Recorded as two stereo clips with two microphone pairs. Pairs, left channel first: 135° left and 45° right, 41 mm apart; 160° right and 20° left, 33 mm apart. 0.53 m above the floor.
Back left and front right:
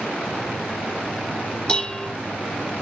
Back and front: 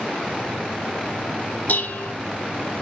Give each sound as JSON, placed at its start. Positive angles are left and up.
{"t": 1.7, "sound": "dishes clattering", "azimuth_deg": -165, "distance_m": 0.8}